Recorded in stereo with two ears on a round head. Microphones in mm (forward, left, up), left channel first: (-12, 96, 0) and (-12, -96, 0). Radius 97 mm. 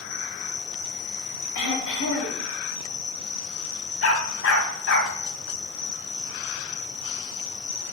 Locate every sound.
0.0 s an insect: 80° left, 4.5 m
1.6 s throat clearing: 75° left (ahead or behind), 5 m
4.0 s a dog barking: 65° left (ahead or behind), 3 m